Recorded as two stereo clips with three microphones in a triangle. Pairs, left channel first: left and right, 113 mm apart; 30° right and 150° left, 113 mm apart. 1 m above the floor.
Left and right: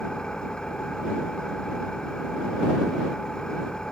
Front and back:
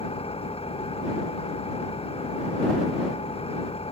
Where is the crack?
I don't hear a crack.